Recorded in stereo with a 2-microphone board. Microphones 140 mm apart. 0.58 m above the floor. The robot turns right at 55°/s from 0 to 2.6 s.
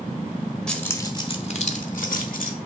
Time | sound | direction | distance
0.7 | keys jangling | 5° left (ahead or behind) | 1.5 m